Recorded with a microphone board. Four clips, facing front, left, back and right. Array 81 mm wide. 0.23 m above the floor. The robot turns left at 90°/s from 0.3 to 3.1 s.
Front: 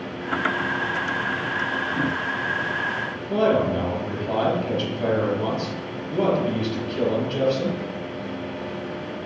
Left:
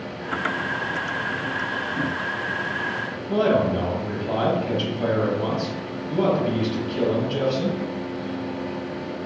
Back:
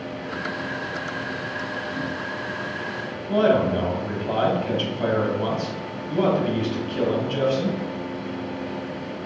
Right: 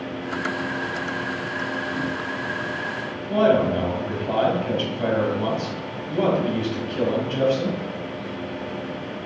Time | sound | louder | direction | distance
3.3 | a man speaking | right 2 dB, back 1 dB | 145° right | 1.4 m